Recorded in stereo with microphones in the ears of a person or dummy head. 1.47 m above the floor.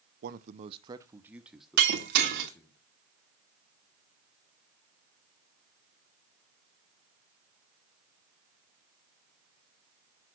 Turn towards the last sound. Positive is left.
turn(degrees=-50)  # may be behind; listen again after turning